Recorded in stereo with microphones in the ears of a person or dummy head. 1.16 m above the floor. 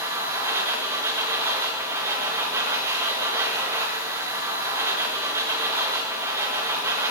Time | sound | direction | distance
0.0 | a machine running | 15° right (ahead or behind) | 0.9 m